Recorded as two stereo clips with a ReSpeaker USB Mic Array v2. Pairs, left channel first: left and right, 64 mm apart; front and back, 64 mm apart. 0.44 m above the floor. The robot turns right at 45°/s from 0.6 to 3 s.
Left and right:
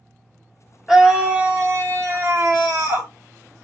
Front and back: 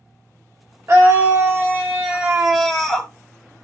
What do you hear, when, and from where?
0.9 s a scream: 170° right, 1.0 m; by 3.1 s 75° right, 1.0 m